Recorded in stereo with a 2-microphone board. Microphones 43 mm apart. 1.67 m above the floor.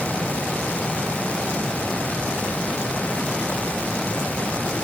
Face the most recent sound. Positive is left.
No sound to turn to.